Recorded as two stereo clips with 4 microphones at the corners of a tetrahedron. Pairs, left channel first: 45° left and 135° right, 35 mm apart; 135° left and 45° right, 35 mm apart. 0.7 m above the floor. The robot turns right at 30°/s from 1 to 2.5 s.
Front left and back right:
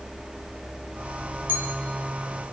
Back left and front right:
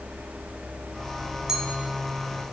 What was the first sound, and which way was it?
A clink, 115° right.